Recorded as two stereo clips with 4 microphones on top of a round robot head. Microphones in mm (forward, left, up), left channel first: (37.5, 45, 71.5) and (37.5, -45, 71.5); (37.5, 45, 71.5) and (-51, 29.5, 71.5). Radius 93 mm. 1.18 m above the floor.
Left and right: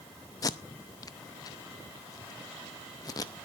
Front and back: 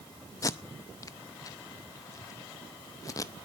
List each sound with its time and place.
0.4 s tape being pulled: 50° left, 0.5 m